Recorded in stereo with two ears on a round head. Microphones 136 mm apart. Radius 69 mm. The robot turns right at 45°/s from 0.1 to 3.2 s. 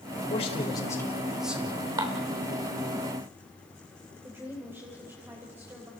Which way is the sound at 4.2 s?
15° right (ahead or behind).